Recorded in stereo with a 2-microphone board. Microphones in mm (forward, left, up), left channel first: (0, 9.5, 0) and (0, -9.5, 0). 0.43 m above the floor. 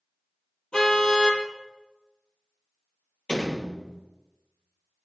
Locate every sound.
0.7 s a car horn: 50° left (ahead or behind), 5 m
3.3 s a door slam: 80° left, 6.5 m